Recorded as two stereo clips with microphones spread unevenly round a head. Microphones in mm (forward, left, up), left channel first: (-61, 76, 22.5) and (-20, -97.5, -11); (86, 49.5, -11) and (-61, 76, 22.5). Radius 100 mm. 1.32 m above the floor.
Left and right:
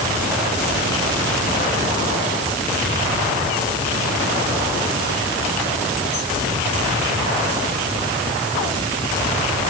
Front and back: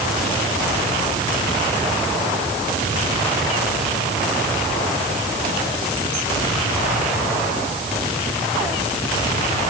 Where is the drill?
No drill in this recording.